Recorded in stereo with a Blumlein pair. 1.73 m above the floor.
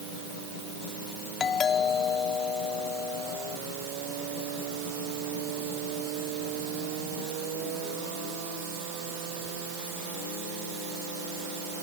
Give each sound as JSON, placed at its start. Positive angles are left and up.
{"t": 1.4, "sound": "a doorbell", "azimuth_deg": 20}